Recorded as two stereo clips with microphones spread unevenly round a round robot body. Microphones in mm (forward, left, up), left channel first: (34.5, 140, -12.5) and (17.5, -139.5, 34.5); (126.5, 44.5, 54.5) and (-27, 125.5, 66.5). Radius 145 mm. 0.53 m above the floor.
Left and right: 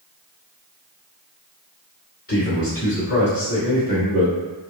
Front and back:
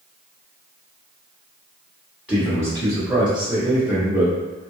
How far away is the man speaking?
About 1.7 m.